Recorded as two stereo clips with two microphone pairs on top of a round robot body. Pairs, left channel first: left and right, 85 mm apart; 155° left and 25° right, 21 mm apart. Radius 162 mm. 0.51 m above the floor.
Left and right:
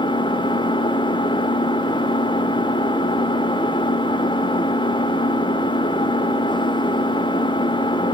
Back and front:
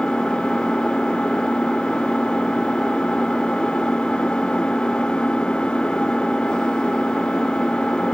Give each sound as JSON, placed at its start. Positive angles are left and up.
{"t": 0.0, "sound": "an engine running", "azimuth_deg": 110, "distance_m": 1.2}